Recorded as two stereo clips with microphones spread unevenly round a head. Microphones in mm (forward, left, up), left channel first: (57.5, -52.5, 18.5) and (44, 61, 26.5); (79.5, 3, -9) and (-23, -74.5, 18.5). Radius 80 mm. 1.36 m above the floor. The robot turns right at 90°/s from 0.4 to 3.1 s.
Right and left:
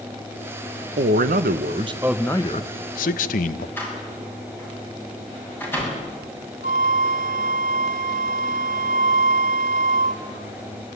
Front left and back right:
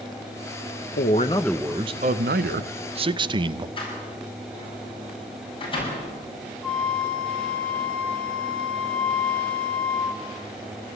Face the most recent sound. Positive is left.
turn(degrees=125)